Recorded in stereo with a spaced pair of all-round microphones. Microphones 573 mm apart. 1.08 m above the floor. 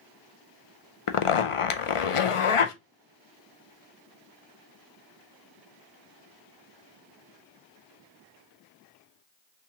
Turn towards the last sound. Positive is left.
turn(degrees=65)  # may be behind; listen again after turning